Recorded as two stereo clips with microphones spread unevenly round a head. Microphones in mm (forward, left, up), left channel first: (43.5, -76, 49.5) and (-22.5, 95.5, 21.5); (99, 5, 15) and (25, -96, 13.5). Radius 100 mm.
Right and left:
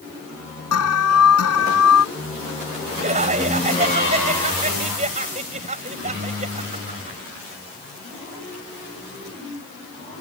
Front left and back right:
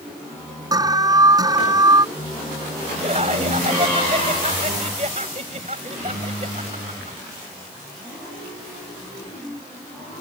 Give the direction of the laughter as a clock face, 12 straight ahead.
6 o'clock.